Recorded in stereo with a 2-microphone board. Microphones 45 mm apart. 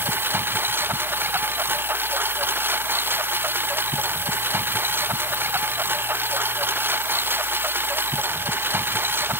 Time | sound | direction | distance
0.0 | a lawn mower | 60° right (ahead or behind) | ?